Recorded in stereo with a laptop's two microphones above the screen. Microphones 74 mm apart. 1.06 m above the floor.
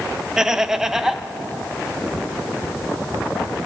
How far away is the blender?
I don't hear a blender.